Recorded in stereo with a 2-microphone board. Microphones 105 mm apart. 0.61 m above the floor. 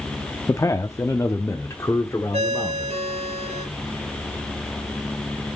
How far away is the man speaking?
About 0.6 m.